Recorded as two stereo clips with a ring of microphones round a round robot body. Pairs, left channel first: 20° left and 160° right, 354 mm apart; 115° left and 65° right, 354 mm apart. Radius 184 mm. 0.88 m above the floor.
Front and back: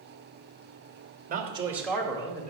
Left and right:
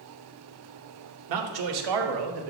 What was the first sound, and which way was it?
A man speaking, 95° right.